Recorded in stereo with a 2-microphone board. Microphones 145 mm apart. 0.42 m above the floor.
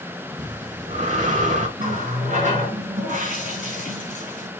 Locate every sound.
0.4 s breathing: 60° right (ahead or behind), 0.9 m
1.8 s a running tap: 65° right (ahead or behind), 2.5 m